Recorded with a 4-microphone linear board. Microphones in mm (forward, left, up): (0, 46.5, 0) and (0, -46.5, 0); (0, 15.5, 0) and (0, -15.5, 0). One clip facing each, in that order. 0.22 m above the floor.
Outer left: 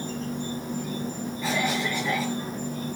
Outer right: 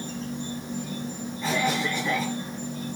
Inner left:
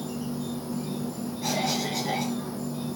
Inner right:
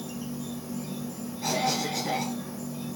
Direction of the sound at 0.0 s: 50° left (ahead or behind).